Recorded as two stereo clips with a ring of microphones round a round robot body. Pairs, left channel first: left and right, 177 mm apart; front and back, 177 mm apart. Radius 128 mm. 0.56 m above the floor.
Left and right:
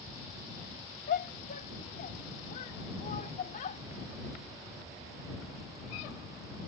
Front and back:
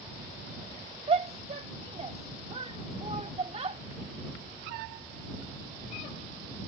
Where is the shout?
130° left.